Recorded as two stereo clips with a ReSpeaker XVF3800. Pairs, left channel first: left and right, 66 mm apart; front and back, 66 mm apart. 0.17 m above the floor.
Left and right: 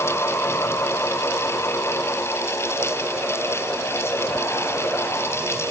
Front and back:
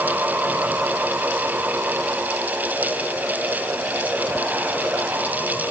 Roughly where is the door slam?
No door slam in this recording.